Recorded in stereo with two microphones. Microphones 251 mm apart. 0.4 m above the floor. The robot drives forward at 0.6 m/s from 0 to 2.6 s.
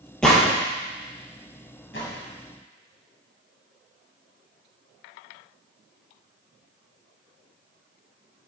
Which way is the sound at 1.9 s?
50° left (ahead or behind).